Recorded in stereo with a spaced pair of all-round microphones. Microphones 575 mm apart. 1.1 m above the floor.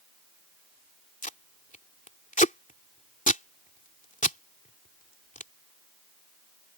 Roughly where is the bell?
No bell in this recording.